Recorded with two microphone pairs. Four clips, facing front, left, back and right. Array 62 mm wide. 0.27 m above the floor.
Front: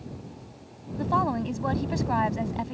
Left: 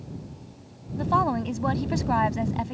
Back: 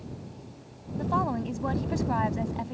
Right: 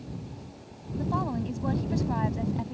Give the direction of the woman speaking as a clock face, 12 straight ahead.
10 o'clock.